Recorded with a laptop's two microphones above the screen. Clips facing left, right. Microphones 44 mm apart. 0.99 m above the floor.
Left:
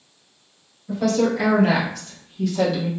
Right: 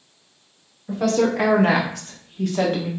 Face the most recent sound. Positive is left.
turn(degrees=-40)  # may be behind; listen again after turning